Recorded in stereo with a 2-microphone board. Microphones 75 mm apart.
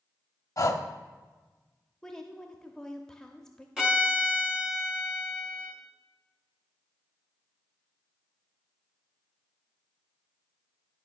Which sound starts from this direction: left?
Breathing, at 0.6 s.